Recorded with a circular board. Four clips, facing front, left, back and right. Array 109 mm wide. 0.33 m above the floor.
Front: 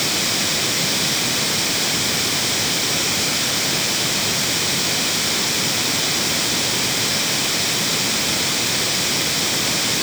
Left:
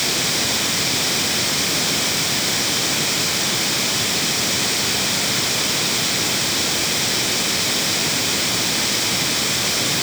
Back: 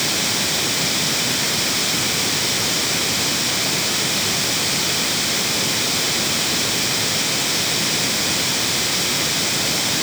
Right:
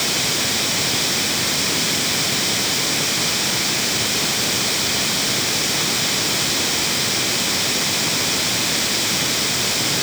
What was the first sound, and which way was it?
Only background noise.